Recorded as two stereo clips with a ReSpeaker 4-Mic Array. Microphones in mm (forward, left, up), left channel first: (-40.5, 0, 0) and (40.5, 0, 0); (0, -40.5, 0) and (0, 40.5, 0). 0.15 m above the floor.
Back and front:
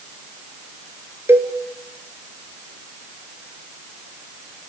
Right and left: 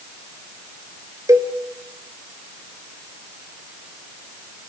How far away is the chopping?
No chopping in this recording.